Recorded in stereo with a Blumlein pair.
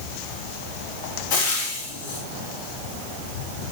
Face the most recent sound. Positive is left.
turn(degrees=50)